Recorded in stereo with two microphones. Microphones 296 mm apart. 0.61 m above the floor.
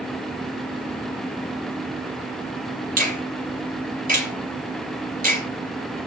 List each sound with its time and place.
3.0 s a finger snap: 30° right (ahead or behind), 3 m